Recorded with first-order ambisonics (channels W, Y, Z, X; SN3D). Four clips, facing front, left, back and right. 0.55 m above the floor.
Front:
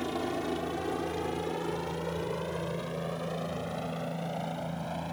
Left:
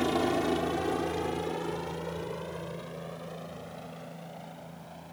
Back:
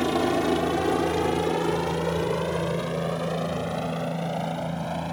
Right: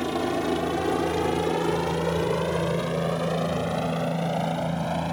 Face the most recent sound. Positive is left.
turn(degrees=-110)